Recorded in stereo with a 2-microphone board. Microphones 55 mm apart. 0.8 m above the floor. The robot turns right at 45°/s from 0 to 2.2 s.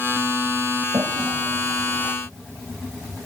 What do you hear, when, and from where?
0.9 s a toilet flushing: 80° right; by 2.1 s 40° right (ahead or behind)